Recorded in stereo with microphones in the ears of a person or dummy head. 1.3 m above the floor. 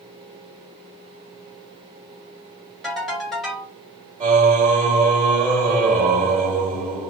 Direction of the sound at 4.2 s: 45° right (ahead or behind).